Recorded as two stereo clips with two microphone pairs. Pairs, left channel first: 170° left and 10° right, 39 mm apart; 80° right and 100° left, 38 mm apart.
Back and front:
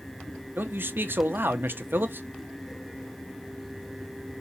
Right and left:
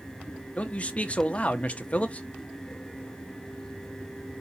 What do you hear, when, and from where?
0.6 s a man speaking: 25° right, 0.8 m